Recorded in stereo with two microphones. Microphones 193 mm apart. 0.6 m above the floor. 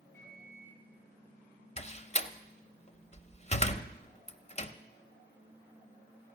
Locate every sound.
0.1 s a microwave: 15° left (ahead or behind), 9.5 m
1.8 s a door slam: 35° left (ahead or behind), 0.6 m